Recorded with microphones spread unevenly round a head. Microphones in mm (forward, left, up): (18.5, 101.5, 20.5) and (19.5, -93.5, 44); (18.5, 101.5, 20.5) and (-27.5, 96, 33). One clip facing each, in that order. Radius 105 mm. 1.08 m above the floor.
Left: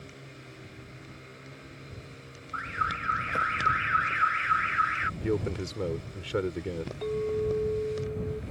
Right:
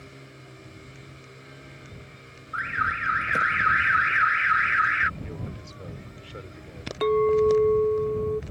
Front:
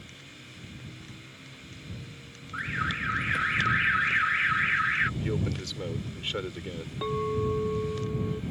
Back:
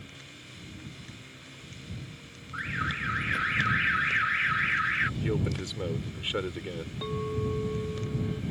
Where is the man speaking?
110° left.